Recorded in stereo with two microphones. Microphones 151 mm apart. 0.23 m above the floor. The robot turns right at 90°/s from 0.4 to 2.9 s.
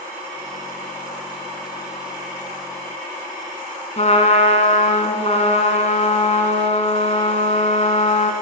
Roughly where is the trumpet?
Left.